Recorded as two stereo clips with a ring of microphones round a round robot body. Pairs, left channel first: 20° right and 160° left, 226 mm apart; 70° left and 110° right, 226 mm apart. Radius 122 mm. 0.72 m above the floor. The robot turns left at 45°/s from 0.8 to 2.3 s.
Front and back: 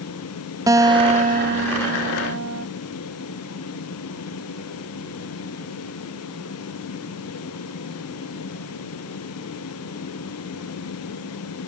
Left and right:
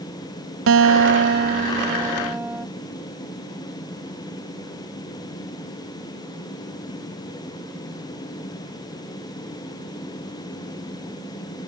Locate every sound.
0.7 s a guitar: 130° right; by 2.7 s 165° left